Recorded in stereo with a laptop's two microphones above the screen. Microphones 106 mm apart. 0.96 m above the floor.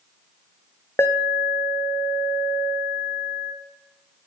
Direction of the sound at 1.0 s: 20° left (ahead or behind).